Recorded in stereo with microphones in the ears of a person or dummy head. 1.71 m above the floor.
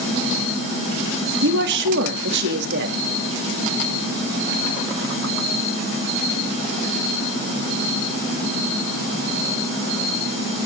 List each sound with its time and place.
1.4 s a woman speaking: 65° right (ahead or behind), 3.5 m